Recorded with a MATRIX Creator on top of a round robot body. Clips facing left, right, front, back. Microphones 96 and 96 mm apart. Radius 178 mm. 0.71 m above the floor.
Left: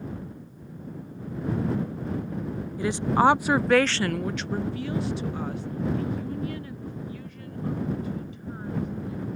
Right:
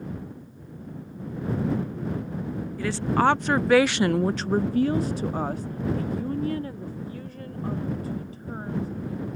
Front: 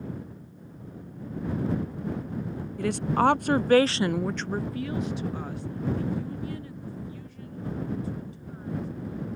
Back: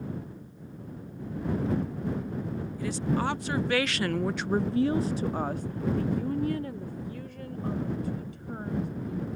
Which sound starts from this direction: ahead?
A woman speaking, at 2.8 s.